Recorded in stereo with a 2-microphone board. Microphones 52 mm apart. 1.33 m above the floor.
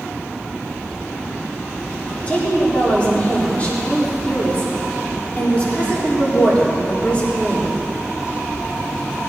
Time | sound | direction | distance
2.3 | a woman speaking | 25° left (ahead or behind) | 4 m